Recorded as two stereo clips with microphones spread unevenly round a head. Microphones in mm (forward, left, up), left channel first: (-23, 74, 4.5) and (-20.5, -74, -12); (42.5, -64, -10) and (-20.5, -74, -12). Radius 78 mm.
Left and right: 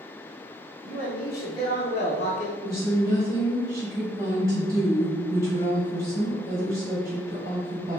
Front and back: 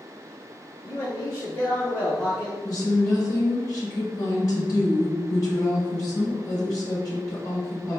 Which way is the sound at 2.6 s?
20° right.